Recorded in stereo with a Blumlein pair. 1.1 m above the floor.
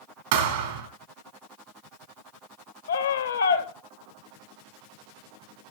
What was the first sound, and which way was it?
A thud, 55° right.